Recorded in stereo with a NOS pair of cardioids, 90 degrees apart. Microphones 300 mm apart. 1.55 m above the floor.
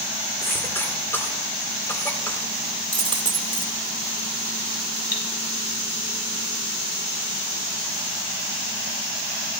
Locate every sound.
0.4 s a cough: 10° left, 4.5 m
2.9 s a dropped coin: 15° right, 2.5 m
5.1 s cutlery clinking: 30° left, 6.5 m